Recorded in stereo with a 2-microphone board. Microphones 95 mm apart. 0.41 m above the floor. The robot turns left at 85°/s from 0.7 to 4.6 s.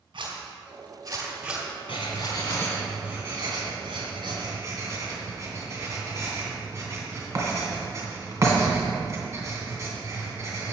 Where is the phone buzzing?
No phone buzzing in this recording.